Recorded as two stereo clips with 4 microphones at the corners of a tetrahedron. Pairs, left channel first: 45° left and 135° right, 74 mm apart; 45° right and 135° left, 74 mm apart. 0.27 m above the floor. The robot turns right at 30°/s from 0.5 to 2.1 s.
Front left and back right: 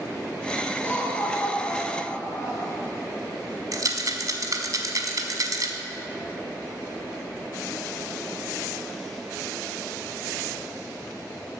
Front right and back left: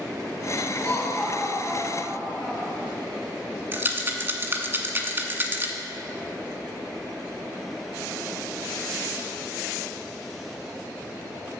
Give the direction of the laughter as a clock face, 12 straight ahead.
12 o'clock.